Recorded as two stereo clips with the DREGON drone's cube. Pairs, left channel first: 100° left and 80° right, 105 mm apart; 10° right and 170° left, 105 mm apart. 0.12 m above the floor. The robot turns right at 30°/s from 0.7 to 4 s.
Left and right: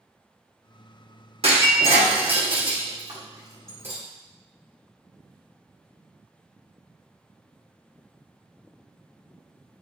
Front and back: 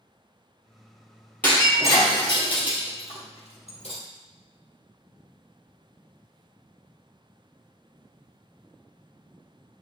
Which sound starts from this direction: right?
Breaking glass, at 1.4 s.